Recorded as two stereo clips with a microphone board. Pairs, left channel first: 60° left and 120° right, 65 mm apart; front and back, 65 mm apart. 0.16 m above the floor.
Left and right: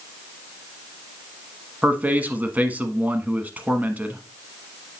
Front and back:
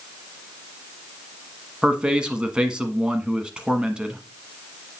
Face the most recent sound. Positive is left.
turn(degrees=-125)